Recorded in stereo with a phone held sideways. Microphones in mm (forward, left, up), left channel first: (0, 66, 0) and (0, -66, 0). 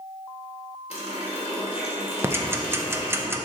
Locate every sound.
0.9 s a running tap: 55° left (ahead or behind), 2 m
2.2 s ticking: 20° right (ahead or behind), 0.5 m